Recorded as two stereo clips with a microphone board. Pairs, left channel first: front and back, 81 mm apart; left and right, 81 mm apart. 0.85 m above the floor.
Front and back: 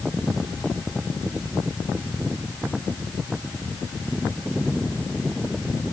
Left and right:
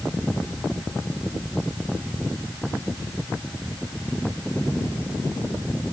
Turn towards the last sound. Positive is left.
No sound to turn to.